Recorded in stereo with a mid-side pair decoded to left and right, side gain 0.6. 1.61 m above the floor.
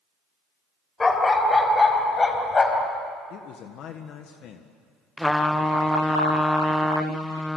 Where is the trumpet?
5° left, 0.9 m.